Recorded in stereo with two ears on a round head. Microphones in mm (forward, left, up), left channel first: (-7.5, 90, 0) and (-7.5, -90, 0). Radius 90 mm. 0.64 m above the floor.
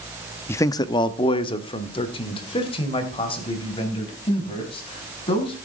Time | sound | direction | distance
0.5 | a man speaking | 10° left (ahead or behind) | 0.5 m